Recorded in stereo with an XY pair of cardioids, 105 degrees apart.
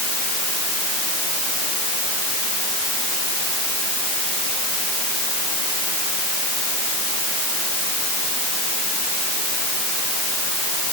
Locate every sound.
Only background noise.